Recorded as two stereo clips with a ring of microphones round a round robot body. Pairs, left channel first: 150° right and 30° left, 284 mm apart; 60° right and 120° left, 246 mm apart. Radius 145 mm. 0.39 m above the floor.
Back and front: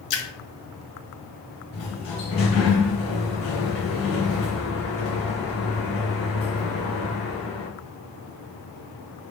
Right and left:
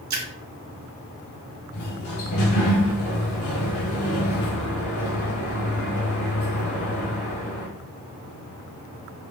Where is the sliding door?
105° right, 1.8 m.